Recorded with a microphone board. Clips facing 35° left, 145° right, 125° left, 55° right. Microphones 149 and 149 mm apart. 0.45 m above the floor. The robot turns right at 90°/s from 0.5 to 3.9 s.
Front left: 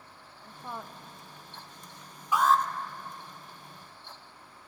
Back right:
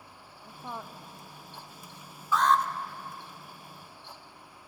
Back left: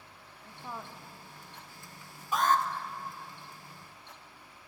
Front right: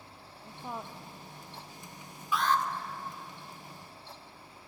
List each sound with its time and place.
0.4 s a woman speaking: 90° right, 0.7 m; by 0.9 s 50° right, 0.7 m
2.3 s an alarm: 105° left, 0.7 m; by 2.6 s 130° left, 0.7 m